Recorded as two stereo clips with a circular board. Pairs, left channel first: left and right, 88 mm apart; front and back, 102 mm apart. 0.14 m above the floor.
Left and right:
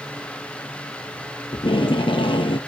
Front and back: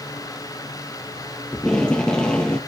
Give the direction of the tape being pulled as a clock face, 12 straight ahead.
9 o'clock.